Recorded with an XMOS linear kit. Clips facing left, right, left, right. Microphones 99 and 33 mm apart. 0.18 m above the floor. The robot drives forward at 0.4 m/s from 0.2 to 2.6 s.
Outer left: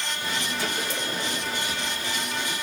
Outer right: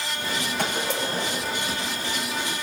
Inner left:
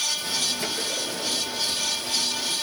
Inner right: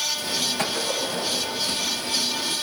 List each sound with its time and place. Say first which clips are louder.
0.6 s a gunshot: outer right 3 dB, inner right 3 dB; 65° right (ahead or behind), 7.5 m